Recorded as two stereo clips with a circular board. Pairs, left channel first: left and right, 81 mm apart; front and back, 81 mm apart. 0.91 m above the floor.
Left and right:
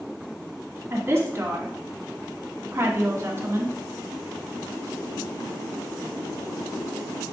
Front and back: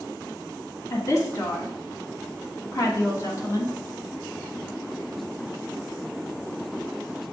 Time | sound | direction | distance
0.9 | a woman speaking | 40° right | 1.7 m